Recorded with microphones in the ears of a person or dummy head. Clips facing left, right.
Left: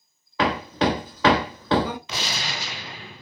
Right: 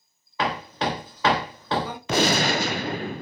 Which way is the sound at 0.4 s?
55° left (ahead or behind).